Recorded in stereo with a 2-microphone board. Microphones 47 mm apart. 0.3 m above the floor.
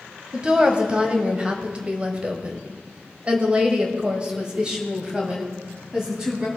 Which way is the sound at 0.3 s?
20° right (ahead or behind).